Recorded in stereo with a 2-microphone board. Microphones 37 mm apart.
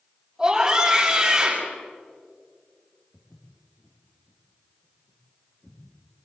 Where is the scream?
20° right (ahead or behind), 8 m.